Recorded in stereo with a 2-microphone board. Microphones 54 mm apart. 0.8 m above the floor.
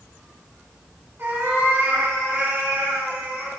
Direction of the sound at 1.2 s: 45° right (ahead or behind).